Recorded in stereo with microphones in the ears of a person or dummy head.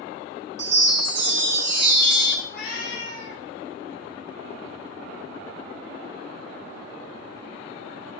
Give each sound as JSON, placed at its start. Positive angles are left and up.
{"t": 0.6, "sound": "a chime", "side_deg": -65, "distance_m": 1.3}
{"t": 2.5, "sound": "a cat meowing", "side_deg": 65, "distance_m": 2.5}